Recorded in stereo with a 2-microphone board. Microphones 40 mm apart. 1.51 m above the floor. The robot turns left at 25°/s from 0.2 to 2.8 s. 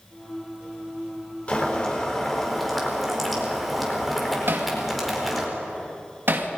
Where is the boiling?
30° left, 4.5 m; by 5.5 s straight ahead, 4.5 m.